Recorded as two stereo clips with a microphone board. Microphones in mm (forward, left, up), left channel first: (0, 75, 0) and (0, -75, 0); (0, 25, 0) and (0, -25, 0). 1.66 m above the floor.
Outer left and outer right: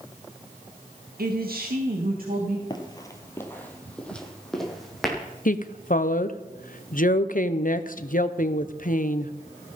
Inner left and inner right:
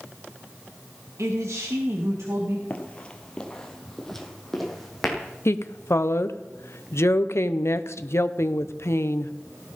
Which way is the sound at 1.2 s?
80° right.